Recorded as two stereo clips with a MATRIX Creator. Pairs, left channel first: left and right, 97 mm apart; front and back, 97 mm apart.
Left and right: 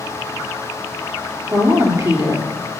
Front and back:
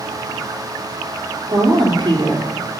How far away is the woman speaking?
About 3 m.